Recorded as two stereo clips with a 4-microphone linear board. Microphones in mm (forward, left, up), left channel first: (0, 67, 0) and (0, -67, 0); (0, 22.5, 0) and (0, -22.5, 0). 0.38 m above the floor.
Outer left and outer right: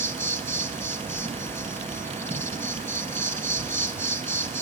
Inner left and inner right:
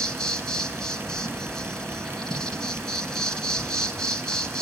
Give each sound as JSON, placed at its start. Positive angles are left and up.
{"t": 0.0, "sound": "an insect", "side_deg": 20, "distance_m": 4.5}